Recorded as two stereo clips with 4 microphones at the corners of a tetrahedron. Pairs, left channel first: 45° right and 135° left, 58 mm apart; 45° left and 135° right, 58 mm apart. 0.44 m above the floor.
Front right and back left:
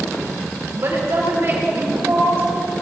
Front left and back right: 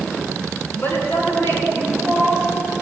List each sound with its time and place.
0.8 s a woman speaking: 95° left, 4.5 m; by 2.4 s 90° left, 6 m